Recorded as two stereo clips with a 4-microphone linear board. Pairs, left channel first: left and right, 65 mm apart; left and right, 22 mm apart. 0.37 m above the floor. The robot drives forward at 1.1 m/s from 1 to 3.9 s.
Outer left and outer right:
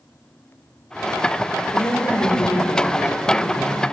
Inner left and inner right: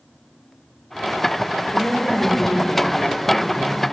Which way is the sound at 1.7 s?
60° left (ahead or behind).